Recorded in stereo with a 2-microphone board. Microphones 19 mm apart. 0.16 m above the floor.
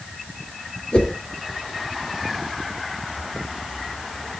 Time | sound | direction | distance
0.9 | a whoosh | 55° left (ahead or behind) | 2.5 m